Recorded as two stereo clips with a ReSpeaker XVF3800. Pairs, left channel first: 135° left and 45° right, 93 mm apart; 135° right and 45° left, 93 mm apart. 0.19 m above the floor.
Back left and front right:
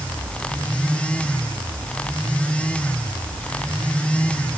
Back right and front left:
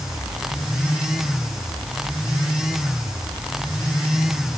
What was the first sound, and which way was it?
Only background noise.